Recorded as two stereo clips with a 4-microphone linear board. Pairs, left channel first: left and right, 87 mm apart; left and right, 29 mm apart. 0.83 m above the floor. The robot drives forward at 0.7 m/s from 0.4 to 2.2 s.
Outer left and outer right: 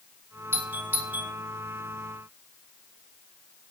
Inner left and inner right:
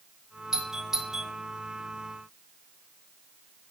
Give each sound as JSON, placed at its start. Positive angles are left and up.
{"t": 0.5, "sound": "a doorbell", "side_deg": -25, "distance_m": 2.0}